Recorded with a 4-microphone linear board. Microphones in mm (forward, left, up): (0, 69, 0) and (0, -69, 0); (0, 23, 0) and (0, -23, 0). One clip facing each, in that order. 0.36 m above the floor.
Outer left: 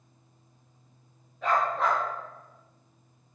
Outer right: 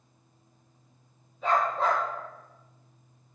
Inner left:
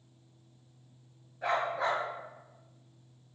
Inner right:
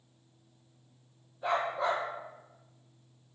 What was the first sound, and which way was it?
A dog barking, 70° left (ahead or behind).